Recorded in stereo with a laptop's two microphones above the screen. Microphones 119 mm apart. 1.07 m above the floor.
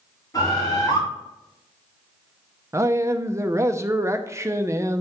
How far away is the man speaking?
About 0.6 m.